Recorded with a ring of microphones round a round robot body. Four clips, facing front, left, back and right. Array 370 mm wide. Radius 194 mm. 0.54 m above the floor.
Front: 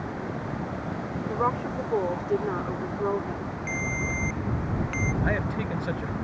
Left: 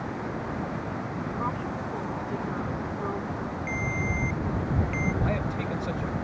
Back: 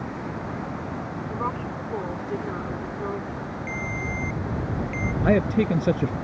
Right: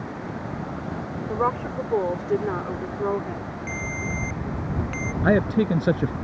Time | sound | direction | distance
1.3 | a woman speaking | 70° right | ?
3.7 | a ringtone | 45° right | ?
5.2 | a man speaking | 125° right | ?